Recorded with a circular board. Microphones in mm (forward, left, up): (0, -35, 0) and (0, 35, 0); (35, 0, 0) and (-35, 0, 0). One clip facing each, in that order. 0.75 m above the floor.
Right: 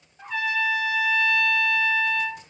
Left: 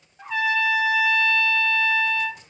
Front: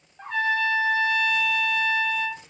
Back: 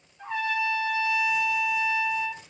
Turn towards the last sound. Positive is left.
turn(degrees=10)